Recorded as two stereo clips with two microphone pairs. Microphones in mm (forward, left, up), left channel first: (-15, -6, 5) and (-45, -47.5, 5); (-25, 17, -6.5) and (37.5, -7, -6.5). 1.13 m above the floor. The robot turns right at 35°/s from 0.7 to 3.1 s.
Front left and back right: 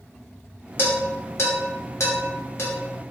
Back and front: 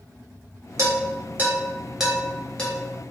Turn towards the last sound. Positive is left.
turn(degrees=100)